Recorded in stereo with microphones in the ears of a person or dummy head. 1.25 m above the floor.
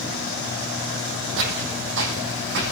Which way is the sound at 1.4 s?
70° right (ahead or behind).